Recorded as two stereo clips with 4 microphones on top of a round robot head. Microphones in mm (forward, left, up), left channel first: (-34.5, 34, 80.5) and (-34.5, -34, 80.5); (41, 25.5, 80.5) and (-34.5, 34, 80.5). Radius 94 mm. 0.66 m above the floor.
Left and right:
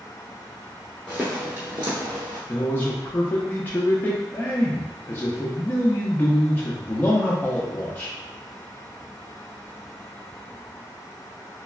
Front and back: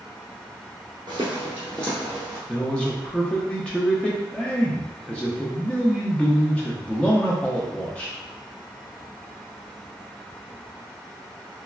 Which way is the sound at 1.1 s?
175° left.